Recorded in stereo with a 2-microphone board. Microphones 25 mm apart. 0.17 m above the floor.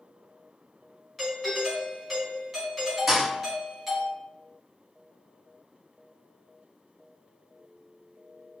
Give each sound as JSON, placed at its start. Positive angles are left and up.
{"t": 1.2, "sound": "a doorbell", "side_deg": -5, "distance_m": 1.4}
{"t": 3.1, "sound": "a thud", "side_deg": -20, "distance_m": 1.6}